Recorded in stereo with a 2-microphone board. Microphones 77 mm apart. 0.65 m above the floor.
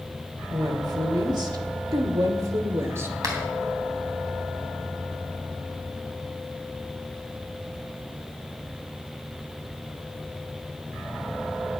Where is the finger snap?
50° right (ahead or behind), 3.5 m.